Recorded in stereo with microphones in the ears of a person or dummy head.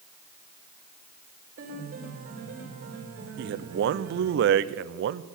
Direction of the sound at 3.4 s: 75° right (ahead or behind).